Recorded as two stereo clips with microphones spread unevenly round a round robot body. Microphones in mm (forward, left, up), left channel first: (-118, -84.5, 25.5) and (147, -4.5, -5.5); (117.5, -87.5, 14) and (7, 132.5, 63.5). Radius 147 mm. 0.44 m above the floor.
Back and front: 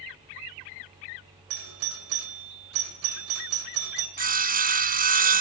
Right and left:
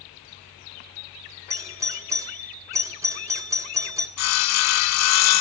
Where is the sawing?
45° right, 1.1 m.